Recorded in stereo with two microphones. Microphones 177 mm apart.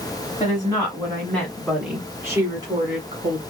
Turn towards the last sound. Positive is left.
turn(degrees=-35)  # may be behind; listen again after turning